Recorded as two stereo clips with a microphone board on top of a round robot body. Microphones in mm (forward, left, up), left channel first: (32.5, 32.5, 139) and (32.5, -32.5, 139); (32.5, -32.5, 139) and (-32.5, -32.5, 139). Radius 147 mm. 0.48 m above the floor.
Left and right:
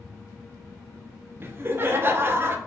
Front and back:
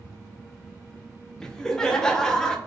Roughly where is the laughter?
Right.